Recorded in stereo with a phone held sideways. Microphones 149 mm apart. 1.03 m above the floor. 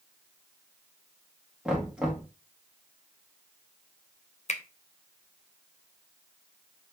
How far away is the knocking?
About 1.3 m.